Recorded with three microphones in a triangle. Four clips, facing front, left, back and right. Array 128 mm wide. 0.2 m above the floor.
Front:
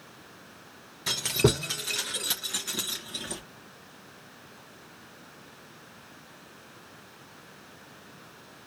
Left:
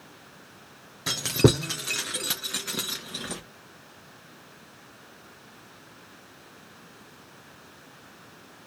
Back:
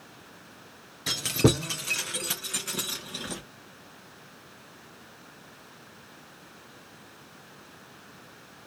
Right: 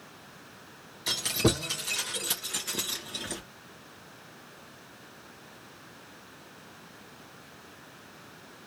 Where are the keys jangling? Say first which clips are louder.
Left 6 dB, back 1 dB; 90° left, 2.5 m; by 3.4 s 120° left, 2 m.